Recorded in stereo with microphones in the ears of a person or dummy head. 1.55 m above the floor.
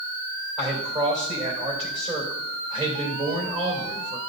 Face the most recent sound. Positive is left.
turn(degrees=-30)  # may be behind; listen again after turning